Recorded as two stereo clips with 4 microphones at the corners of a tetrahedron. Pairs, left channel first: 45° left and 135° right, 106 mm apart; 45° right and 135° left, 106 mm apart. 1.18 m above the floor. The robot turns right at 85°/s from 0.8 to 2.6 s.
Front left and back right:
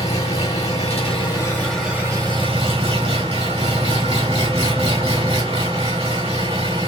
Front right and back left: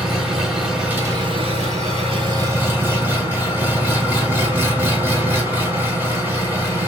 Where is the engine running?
50° left, 1.6 m; by 6.9 s 155° right, 1.6 m.